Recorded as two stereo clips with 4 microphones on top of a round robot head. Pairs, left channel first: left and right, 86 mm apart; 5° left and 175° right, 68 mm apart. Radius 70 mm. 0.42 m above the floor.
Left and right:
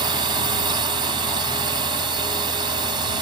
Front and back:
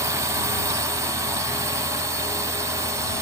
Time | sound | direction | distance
0.0 | a drone | 125° right | ?